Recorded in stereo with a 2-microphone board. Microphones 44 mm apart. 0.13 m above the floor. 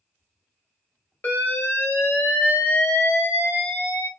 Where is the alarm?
45° left (ahead or behind), 2 m.